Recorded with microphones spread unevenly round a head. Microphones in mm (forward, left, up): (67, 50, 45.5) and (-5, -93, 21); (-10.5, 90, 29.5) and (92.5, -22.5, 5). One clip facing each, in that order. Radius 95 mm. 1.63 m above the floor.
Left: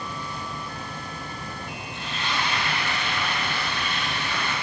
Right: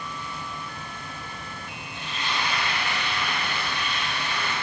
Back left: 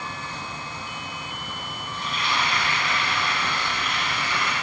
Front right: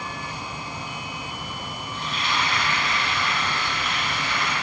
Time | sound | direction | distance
1.9 | frying | 165° left | 1.7 m